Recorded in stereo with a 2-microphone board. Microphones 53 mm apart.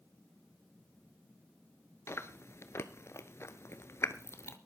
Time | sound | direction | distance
2.1 | chewing | 55° left (ahead or behind) | 1.0 m